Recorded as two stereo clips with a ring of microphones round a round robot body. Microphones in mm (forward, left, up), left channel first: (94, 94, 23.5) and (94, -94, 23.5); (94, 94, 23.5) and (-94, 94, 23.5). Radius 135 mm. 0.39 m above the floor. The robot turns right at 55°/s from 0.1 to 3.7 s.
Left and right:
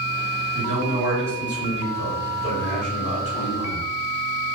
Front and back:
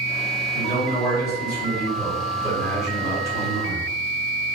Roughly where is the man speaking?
Ahead right.